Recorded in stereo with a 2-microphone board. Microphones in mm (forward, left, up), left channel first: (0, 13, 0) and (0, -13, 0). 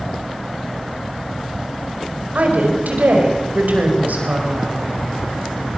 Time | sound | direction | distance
2.4 | a woman speaking | 75° right (ahead or behind) | 5 m